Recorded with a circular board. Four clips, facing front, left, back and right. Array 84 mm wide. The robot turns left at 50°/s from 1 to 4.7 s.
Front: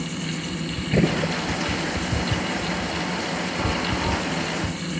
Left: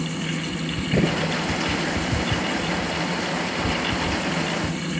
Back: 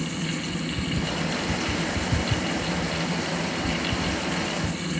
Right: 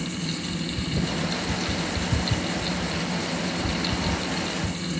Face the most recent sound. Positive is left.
turn(degrees=-30)